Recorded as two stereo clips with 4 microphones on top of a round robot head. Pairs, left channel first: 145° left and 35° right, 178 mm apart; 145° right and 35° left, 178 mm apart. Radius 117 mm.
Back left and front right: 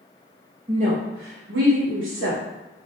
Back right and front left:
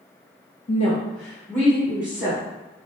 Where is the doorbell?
I don't hear a doorbell.